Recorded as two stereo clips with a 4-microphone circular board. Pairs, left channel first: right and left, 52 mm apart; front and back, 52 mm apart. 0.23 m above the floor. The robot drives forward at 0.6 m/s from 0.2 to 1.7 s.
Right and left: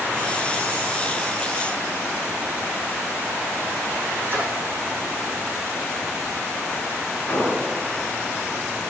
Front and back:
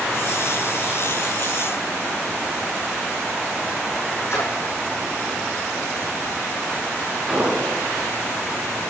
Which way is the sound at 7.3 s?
95° right.